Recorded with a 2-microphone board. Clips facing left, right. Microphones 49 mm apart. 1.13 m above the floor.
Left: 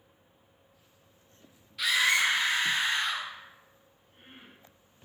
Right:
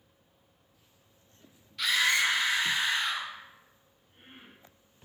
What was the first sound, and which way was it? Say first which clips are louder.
A scream: left 1 dB; 5° left (ahead or behind).